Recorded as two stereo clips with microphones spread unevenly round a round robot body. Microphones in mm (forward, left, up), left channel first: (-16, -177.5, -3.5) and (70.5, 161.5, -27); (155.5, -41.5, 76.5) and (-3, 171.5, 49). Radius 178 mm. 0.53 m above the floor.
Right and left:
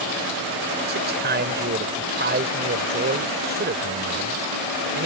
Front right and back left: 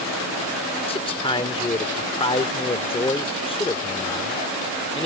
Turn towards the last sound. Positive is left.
turn(degrees=20)